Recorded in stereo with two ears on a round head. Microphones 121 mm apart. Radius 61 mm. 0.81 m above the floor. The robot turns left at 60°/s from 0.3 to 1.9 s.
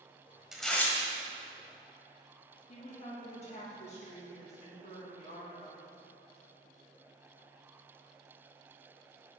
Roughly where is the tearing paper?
Centre.